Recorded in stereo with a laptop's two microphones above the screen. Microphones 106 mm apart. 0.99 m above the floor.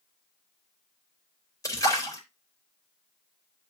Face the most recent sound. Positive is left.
turn(degrees=30)  # may be behind; listen again after turning